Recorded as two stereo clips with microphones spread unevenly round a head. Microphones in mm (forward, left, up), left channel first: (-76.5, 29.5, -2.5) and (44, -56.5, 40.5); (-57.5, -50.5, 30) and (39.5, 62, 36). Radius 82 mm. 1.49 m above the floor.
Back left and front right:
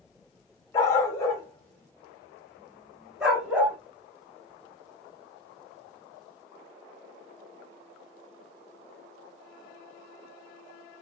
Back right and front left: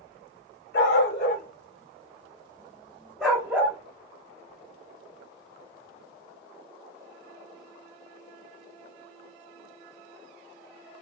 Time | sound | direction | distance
0.7 | a dog barking | 135° right | 1.7 m